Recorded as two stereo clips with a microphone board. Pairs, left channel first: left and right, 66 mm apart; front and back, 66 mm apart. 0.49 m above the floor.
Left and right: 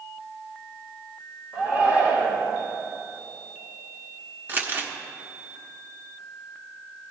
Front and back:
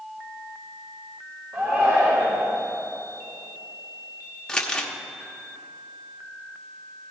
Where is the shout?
145° right, 2.0 m.